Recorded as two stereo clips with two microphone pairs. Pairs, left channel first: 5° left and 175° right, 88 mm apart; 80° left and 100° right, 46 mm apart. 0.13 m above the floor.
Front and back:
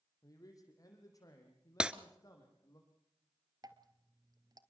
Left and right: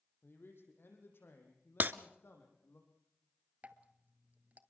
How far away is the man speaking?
About 6 m.